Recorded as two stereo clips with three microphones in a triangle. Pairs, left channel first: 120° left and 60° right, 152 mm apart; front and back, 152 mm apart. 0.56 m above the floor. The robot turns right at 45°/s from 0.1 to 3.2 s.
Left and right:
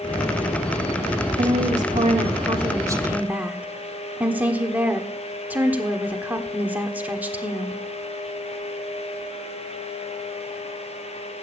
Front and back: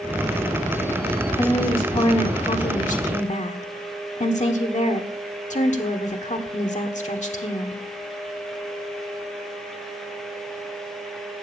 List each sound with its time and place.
1.4 s a woman speaking: 65° right, 1.5 m; by 7.8 s 15° left, 1.5 m